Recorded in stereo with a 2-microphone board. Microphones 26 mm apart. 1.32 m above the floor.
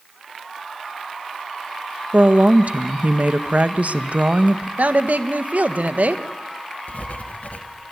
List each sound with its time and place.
2.1 s a woman speaking: 65° right (ahead or behind), 1.2 m
4.8 s a woman speaking: 75° right (ahead or behind), 1.6 m
6.9 s writing: 70° left (ahead or behind), 1.7 m